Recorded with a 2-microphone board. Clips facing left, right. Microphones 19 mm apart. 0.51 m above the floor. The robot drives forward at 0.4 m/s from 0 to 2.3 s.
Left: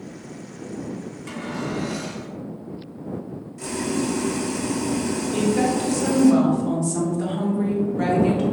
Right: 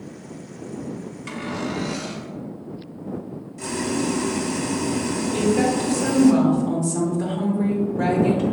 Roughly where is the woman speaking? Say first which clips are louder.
Right 1 dB; left.